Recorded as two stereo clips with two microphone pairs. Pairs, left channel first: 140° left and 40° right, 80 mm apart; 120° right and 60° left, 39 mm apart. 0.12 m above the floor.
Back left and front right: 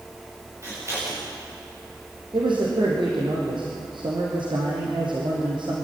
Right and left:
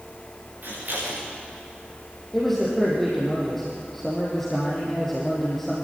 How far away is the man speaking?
About 4 m.